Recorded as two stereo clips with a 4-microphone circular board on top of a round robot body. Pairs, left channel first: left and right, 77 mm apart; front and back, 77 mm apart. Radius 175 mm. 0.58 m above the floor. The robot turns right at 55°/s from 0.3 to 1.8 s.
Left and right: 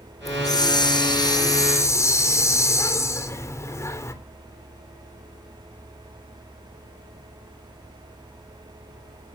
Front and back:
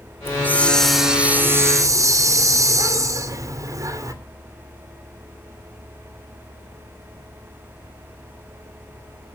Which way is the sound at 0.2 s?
55° left.